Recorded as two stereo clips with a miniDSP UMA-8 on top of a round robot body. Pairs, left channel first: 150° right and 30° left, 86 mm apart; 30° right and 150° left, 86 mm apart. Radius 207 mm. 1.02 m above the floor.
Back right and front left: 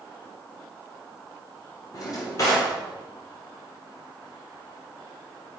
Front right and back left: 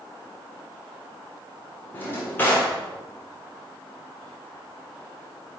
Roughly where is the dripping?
I don't hear dripping.